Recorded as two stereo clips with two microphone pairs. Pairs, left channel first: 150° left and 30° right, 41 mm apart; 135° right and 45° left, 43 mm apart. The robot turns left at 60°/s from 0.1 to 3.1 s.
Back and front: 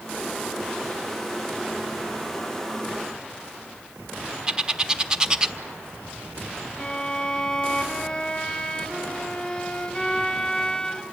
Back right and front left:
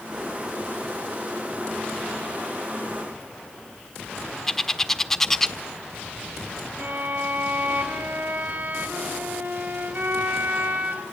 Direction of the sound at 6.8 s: 70° left.